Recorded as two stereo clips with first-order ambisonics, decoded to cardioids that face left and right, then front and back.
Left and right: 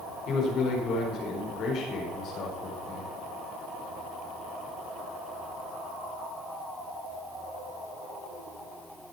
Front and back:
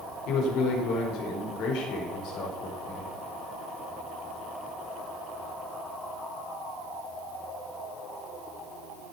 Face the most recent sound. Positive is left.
turn(degrees=35)